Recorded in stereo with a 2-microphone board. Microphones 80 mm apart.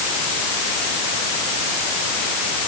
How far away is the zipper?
No zipper in this recording.